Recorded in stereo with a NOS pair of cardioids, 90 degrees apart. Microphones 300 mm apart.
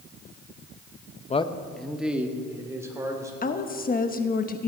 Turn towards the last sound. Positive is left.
turn(degrees=30)